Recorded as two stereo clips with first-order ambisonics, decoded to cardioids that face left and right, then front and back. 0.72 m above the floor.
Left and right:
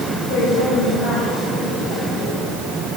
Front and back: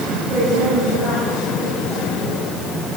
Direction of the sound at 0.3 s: 100° left.